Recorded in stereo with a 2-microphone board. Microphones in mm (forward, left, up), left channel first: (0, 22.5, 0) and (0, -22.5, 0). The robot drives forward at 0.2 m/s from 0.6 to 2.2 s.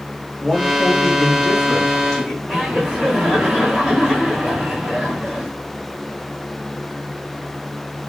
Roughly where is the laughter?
Centre.